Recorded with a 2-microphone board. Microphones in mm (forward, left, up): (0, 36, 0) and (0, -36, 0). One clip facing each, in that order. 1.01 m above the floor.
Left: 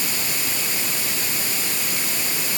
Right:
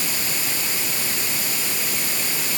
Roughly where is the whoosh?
I don't hear a whoosh.